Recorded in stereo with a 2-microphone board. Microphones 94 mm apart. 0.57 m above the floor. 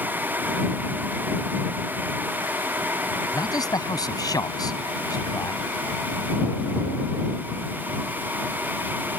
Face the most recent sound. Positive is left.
turn(degrees=45)  # may be behind; listen again after turning